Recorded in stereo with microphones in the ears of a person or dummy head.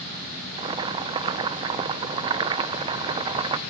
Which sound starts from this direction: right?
Boiling, at 0.6 s.